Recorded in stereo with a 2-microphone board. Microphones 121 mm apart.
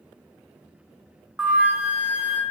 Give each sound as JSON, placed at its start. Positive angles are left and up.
{"t": 1.4, "sound": "a flute", "side_deg": -10, "distance_m": 0.6}